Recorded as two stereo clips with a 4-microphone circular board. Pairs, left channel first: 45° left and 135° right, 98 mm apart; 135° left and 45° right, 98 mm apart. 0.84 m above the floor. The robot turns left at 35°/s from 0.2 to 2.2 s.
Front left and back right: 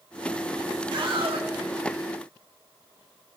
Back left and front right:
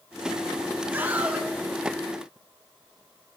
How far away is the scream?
About 2 m.